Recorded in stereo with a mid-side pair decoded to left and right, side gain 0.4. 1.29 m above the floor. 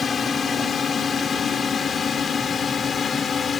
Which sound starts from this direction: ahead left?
A drone, at 0.0 s.